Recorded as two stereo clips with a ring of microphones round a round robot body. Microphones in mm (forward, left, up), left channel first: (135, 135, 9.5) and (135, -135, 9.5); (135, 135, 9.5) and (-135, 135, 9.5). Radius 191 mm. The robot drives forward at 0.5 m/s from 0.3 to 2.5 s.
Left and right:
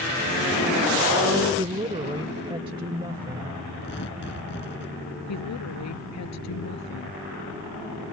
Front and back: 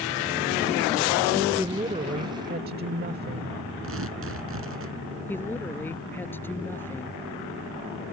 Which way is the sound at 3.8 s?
150° left.